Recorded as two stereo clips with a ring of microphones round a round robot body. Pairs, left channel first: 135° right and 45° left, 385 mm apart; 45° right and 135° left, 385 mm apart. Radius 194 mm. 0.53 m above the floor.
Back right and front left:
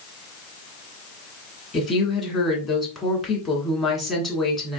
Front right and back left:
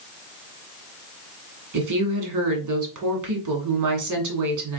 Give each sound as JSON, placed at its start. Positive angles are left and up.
{"t": 1.7, "sound": "a woman speaking", "azimuth_deg": 135, "distance_m": 1.6}